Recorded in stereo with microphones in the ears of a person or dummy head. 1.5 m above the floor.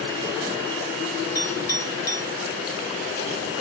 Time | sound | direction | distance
1.4 | a clink | 20° left (ahead or behind) | 3 m